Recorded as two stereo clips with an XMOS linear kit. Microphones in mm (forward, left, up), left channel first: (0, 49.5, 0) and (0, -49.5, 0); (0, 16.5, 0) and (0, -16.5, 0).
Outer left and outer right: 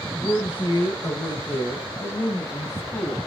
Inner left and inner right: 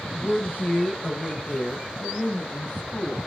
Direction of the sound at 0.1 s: 55° left (ahead or behind).